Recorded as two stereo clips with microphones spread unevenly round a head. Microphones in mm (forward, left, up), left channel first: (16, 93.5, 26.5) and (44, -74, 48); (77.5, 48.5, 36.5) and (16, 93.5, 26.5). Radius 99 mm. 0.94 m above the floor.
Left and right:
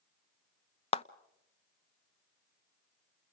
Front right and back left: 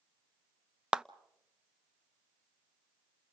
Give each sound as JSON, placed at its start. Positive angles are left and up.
{"t": 0.9, "sound": "a clap", "azimuth_deg": 80, "distance_m": 0.7}